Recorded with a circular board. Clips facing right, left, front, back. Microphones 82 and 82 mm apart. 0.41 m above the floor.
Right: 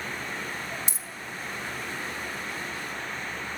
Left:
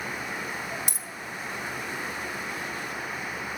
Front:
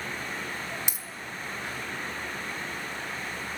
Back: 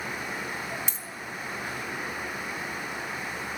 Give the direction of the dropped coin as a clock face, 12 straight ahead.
9 o'clock.